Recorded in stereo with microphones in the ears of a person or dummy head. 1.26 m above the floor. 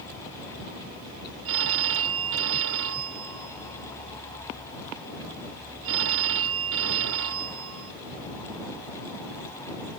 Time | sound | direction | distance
1.4 | a phone ringing | 75° right (ahead or behind) | ?